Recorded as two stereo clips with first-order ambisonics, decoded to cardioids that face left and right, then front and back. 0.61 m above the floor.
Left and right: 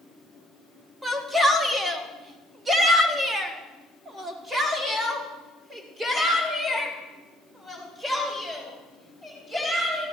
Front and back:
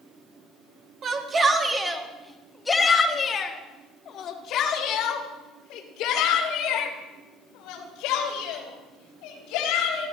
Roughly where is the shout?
Behind.